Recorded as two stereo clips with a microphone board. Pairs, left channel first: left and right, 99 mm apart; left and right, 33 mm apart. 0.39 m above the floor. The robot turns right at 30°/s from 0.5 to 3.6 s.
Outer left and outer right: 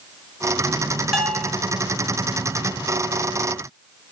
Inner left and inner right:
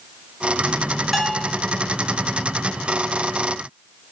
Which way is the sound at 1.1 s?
Centre (ahead or behind).